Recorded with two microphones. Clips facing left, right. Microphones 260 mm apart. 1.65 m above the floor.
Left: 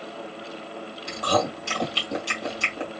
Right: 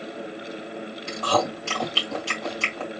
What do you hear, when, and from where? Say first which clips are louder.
1.1 s chewing: even; 15° left (ahead or behind), 2.5 m